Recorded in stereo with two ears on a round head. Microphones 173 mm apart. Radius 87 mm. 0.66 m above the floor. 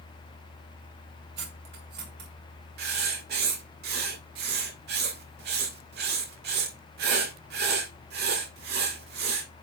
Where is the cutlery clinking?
60° right (ahead or behind), 2.5 m.